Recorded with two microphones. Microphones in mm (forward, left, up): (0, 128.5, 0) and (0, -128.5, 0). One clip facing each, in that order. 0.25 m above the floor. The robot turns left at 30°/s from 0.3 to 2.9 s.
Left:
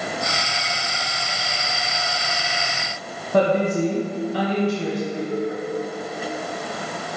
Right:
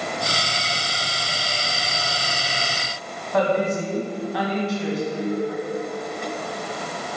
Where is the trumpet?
No trumpet in this recording.